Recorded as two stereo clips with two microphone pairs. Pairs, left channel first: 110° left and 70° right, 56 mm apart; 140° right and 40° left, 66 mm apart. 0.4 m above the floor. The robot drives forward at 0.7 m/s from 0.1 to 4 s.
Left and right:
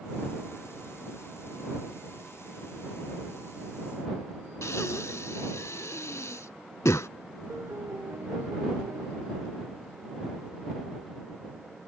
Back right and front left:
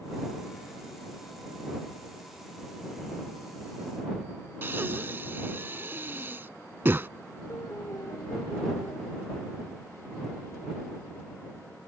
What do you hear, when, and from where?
4.6 s breathing: 90° left
7.5 s a piano: 105° right